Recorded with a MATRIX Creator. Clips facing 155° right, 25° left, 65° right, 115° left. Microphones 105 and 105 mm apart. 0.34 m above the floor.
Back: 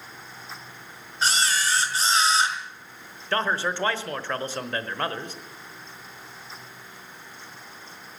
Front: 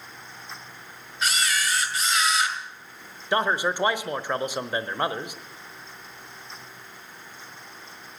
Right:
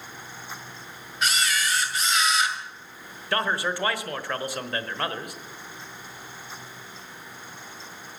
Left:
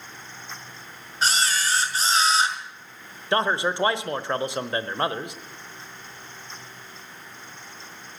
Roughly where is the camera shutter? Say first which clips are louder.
Back 2 dB, left 2 dB; behind left.